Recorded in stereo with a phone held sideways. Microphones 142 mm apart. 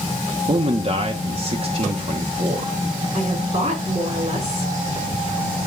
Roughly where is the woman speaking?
Right.